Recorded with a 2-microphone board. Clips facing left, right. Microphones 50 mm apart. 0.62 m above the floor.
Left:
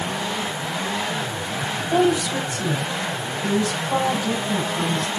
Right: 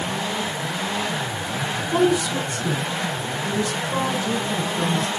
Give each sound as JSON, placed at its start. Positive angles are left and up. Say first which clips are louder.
{"t": 1.8, "sound": "a woman speaking", "louder": "even", "side_deg": 60, "distance_m": 4.5}